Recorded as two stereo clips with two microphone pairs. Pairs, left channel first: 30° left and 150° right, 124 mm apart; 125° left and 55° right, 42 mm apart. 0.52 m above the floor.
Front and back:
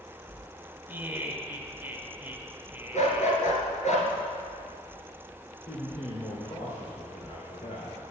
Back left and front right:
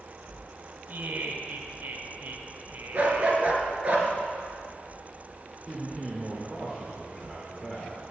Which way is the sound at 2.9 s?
5° left.